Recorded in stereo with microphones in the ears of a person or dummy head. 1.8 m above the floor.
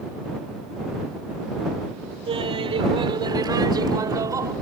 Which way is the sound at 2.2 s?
30° right (ahead or behind).